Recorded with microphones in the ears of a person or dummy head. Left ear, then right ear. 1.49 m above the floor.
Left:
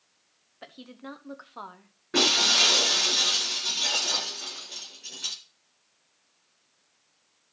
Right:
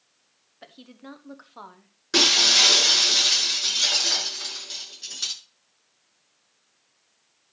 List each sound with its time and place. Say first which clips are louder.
0.6 s a woman speaking: left 2 dB; 5° left (ahead or behind), 1.2 m
2.1 s breaking glass: right 4 dB; 80° right, 7 m